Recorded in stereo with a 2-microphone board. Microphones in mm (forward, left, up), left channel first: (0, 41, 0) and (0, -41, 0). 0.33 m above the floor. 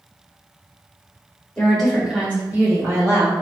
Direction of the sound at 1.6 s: 15° left (ahead or behind).